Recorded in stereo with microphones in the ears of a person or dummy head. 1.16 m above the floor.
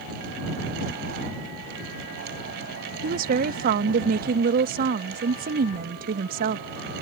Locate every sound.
3.0 s a woman speaking: 50° right (ahead or behind)